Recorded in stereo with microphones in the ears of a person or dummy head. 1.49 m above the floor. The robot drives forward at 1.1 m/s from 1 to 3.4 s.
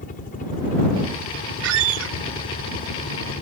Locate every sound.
0.0 s a helicopter: 40° left (ahead or behind); by 3.4 s 45° left (ahead or behind)
1.6 s a squeak: 75° right (ahead or behind); by 2.1 s 70° right (ahead or behind)